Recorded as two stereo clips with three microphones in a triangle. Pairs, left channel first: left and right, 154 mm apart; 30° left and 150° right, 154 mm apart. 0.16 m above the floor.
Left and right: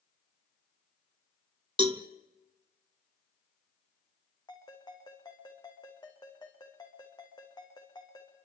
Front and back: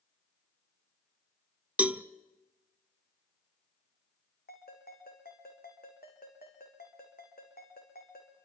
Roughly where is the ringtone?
Ahead left.